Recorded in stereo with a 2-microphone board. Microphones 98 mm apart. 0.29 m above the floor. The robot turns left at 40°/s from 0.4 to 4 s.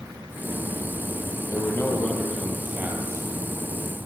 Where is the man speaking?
35° left, 7.5 m; by 3.3 s 35° right, 7.5 m.